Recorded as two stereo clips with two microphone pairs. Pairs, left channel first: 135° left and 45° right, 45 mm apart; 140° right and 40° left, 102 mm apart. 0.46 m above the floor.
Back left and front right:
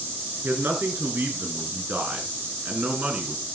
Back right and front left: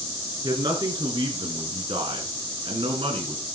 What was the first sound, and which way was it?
A man speaking, straight ahead.